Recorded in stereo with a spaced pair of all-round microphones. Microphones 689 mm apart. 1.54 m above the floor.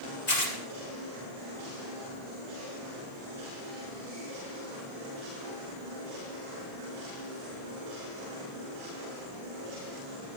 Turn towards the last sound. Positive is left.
turn(degrees=75)  # may be behind; listen again after turning